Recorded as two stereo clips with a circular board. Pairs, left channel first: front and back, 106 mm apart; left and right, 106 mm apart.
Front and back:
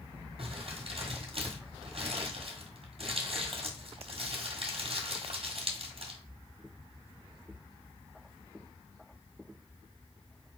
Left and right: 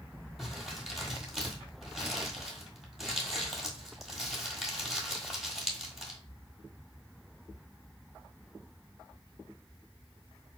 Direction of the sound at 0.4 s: Straight behind.